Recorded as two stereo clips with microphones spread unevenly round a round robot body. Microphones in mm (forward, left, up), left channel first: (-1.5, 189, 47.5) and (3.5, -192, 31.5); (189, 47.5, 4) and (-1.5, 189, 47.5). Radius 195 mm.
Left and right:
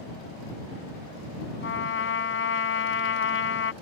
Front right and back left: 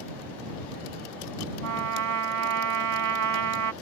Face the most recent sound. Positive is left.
turn(degrees=150)